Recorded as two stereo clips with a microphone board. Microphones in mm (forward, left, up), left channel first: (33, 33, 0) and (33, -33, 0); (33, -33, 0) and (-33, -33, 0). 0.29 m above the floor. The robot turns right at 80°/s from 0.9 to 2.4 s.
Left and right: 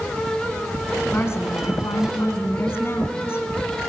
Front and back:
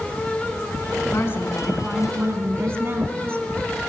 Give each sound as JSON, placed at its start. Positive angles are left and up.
{"t": 1.1, "sound": "a woman speaking", "azimuth_deg": 30, "distance_m": 2.5}